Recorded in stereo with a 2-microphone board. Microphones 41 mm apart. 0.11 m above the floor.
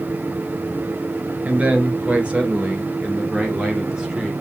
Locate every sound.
1.4 s a man speaking: 30° right (ahead or behind), 1.8 m; by 4.3 s 15° right (ahead or behind), 2.5 m